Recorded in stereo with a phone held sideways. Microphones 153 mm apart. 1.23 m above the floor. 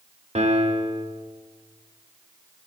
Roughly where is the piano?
Right.